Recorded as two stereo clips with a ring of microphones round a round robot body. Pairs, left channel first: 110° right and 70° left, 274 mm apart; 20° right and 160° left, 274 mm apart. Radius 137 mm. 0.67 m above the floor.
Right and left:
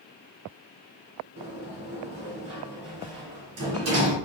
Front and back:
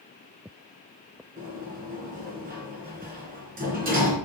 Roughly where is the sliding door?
Left.